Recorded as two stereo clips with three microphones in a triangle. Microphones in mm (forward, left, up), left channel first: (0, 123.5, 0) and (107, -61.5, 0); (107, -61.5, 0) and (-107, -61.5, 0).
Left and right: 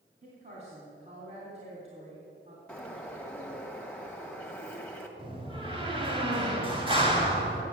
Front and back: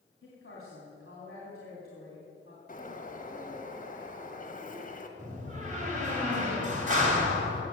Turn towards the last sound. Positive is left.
turn(degrees=-125)